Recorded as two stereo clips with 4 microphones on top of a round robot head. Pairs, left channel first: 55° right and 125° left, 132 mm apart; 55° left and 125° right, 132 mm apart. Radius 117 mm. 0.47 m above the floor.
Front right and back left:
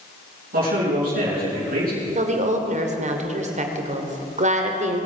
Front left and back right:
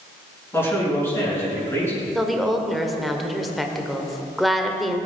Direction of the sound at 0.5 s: 125° left.